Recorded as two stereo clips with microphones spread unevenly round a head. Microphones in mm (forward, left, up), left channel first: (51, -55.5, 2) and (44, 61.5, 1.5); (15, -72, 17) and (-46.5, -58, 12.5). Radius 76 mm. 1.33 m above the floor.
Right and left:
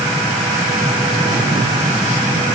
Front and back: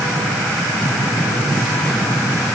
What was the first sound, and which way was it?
Only background noise.